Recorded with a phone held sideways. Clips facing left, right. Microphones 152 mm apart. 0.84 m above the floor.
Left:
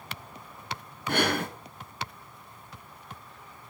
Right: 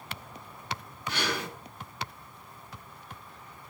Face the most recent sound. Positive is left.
turn(degrees=50)  # may be behind; listen again after turning